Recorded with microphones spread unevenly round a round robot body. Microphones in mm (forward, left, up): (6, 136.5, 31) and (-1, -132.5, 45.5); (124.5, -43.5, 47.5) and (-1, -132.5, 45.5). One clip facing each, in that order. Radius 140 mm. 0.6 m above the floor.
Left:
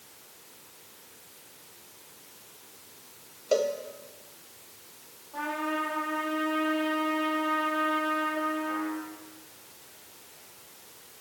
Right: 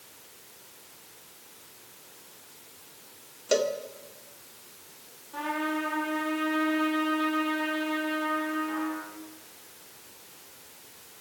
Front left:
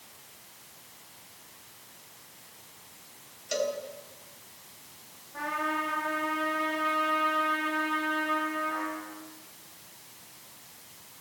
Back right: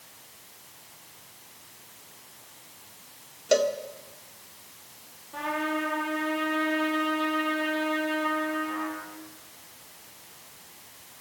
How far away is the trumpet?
About 7.5 m.